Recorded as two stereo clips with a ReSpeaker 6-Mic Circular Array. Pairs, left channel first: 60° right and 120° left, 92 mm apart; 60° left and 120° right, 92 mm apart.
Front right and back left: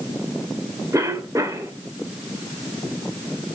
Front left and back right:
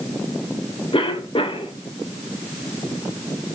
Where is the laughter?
I don't hear laughter.